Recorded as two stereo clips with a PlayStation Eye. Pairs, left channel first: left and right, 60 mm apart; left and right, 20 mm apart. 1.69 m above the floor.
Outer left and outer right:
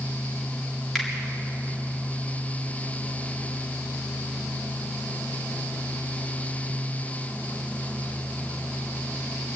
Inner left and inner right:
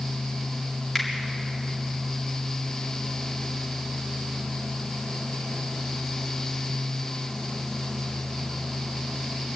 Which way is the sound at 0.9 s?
Centre (ahead or behind).